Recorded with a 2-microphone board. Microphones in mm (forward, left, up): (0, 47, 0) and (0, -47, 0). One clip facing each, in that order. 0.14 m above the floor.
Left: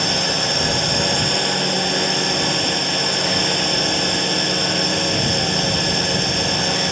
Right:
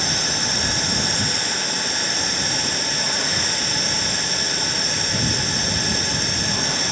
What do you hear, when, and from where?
0.0 s a drone: 60° left (ahead or behind)